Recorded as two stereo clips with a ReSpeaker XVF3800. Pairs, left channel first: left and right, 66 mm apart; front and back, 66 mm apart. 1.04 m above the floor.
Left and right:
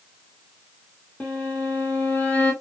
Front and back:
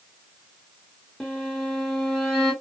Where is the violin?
70° left, 0.8 m.